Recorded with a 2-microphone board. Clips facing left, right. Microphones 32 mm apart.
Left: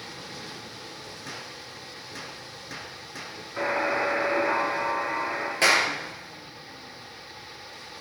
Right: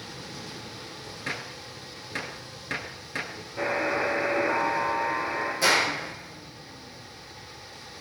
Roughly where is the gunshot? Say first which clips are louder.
Right 7 dB; right.